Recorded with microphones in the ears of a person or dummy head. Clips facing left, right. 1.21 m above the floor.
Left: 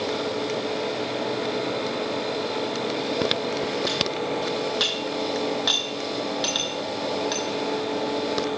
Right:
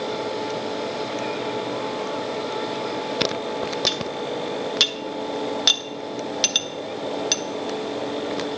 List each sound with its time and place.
3.9 s cutlery clinking: 40° right (ahead or behind), 0.5 m